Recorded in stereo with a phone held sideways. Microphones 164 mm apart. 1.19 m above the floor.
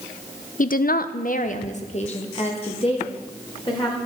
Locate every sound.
0.6 s a woman speaking: 55° left (ahead or behind), 0.5 m; by 4.0 s 30° left (ahead or behind), 2.5 m